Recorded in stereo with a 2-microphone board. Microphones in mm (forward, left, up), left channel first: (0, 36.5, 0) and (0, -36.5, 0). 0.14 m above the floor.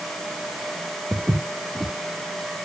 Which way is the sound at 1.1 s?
15° right (ahead or behind).